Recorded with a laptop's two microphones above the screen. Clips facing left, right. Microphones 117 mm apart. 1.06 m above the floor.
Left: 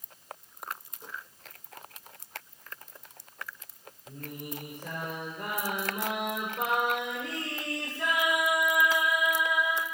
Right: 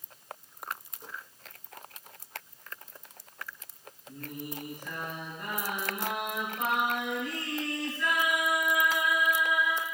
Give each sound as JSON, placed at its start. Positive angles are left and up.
{"t": 4.1, "sound": "singing", "side_deg": 65, "distance_m": 4.0}